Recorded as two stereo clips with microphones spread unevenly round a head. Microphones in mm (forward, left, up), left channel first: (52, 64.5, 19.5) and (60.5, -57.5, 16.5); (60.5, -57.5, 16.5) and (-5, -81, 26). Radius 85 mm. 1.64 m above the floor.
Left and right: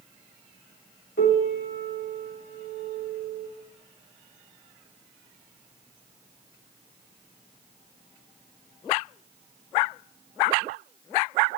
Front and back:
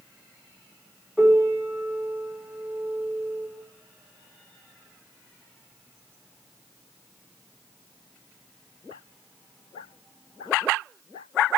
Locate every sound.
1.2 s a piano: 110° left, 3 m